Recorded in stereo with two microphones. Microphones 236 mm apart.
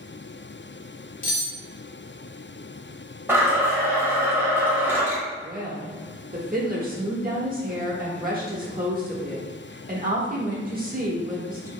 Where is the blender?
10° right (ahead or behind), 1.0 m.